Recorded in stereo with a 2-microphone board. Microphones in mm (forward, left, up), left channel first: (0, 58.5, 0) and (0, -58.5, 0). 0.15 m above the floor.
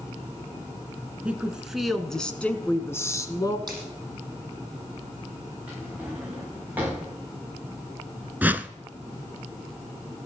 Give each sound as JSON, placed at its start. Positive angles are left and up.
{"t": 1.2, "sound": "a woman speaking", "side_deg": -10, "distance_m": 1.5}
{"t": 3.7, "sound": "a finger snap", "side_deg": -35, "distance_m": 6.0}
{"t": 5.7, "sound": "a drawer", "side_deg": -15, "distance_m": 6.5}
{"t": 8.4, "sound": "a whoosh", "side_deg": -15, "distance_m": 0.5}